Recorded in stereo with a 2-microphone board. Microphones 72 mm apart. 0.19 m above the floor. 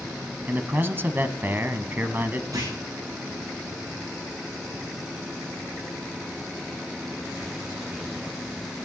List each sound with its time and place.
0.5 s a man speaking: 30° right (ahead or behind), 1.1 m
2.5 s a clunk: 60° right (ahead or behind), 9 m